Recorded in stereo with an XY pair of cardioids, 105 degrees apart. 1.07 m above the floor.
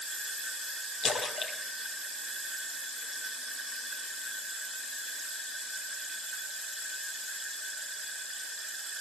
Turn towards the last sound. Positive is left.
turn(degrees=45)